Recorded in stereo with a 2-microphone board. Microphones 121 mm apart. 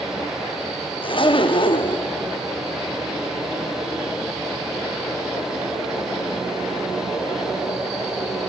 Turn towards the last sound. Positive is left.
turn(degrees=45)  # may be behind; listen again after turning